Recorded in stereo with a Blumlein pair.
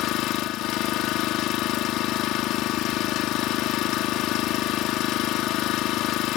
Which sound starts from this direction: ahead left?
An engine running, at 0.0 s.